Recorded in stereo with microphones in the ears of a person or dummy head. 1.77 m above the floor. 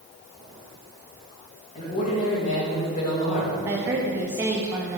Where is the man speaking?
40° left (ahead or behind), 2.5 m.